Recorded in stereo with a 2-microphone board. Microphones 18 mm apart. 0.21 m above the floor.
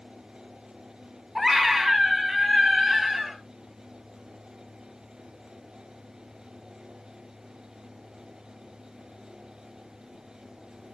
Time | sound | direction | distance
1.4 | a scream | 25° right (ahead or behind) | 1.4 m